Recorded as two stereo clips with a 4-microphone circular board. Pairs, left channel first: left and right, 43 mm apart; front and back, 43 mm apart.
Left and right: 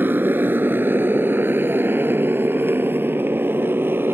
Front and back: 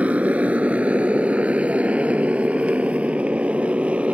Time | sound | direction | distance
0.0 | a motorcycle | 125° right | ?